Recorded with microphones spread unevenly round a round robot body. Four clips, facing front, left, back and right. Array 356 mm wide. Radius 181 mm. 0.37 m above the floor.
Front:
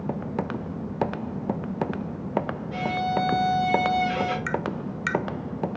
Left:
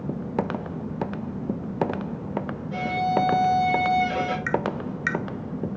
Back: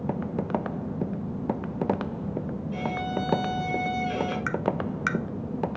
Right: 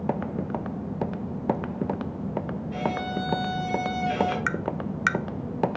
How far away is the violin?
About 7 m.